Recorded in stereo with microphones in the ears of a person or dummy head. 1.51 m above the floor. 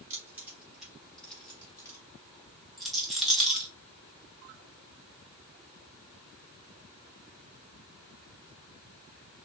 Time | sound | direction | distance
0.1 | keys jangling | 15° right (ahead or behind) | 3 m
2.8 | a rattle | centre (ahead or behind) | 2 m